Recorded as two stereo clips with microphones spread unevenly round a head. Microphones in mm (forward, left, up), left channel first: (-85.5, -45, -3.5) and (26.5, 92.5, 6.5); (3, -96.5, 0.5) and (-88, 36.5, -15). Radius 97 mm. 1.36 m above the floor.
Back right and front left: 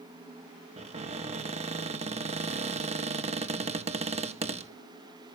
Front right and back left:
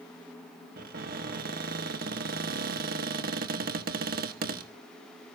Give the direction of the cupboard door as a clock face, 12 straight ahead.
9 o'clock.